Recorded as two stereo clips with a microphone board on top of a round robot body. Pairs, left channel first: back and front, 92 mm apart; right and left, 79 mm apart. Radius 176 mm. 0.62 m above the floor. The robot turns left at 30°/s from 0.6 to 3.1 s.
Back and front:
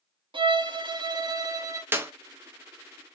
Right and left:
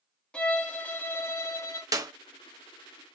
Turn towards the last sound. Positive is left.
turn(degrees=25)